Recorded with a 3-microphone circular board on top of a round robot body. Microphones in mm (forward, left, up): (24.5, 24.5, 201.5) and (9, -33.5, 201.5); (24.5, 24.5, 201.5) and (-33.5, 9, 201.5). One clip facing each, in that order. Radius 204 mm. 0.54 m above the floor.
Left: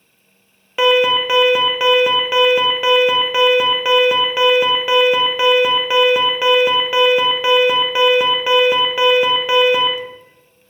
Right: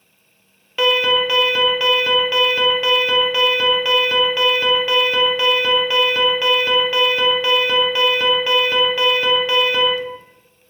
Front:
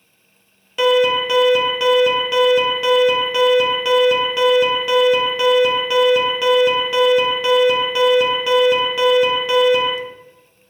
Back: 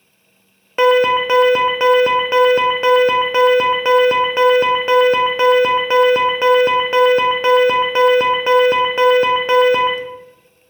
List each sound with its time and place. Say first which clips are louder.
0.8 s an alarm: left 3 dB, back 3 dB; 145° left, 0.5 m